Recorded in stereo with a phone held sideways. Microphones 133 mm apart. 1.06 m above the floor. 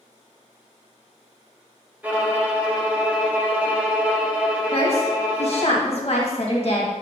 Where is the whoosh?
I don't hear a whoosh.